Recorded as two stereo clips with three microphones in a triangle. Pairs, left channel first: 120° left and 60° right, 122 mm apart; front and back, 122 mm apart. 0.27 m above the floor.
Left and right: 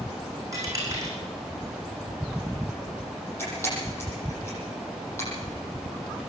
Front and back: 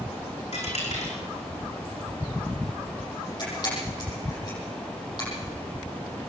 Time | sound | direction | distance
0.5 | a dropped coin | straight ahead | 6 m
3.4 | a camera shutter | 50° left | 9.5 m